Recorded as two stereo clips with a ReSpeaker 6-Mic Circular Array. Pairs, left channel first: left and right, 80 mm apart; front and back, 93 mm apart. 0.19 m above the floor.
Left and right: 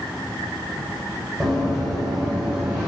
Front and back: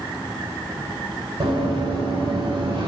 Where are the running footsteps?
Straight behind, 4.5 m; by 2.9 s 170° right, 4.5 m.